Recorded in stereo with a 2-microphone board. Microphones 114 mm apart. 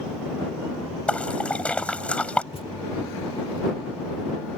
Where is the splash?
10° left (ahead or behind).